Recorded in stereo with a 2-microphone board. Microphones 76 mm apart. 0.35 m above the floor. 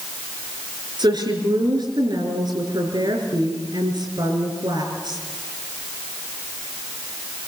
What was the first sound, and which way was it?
A woman speaking, 70° right (ahead or behind).